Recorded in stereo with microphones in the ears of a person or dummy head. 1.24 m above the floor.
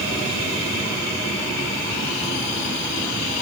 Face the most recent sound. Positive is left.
No sound to turn to.